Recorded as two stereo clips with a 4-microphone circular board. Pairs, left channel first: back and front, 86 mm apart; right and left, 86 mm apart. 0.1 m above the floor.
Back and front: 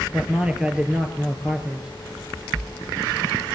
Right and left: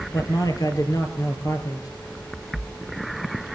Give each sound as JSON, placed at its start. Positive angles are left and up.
{"t": 0.1, "sound": "a man speaking", "azimuth_deg": -75, "distance_m": 2.5}